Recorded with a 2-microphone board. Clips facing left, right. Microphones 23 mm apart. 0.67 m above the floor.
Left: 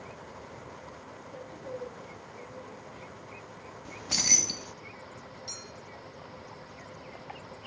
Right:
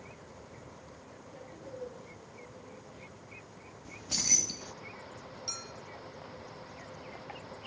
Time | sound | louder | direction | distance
1.3 | a woman speaking | left 5 dB | 80° left | 7.5 m
3.9 | keys jangling | left 4 dB | 40° left (ahead or behind) | 0.5 m
5.5 | a clink | right 3 dB | 50° right (ahead or behind) | 2.5 m